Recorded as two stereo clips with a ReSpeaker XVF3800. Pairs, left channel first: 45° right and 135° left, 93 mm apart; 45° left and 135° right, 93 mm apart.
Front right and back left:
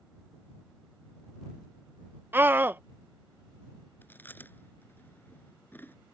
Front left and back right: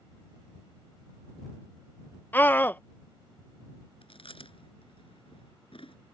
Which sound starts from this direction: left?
A scream, at 2.3 s.